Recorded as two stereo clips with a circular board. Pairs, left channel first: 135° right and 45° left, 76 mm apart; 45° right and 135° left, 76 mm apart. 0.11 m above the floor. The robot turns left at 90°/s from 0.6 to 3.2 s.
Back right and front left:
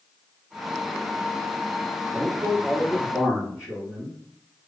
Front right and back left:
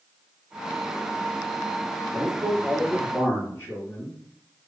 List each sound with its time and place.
2.1 s a man speaking: 85° left, 1.8 m; by 4.2 s 10° right, 1.8 m